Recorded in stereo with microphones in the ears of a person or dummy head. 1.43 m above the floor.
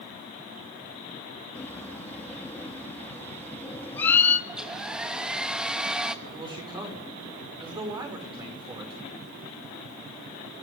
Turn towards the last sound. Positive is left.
turn(degrees=-25)  # may be behind; listen again after turning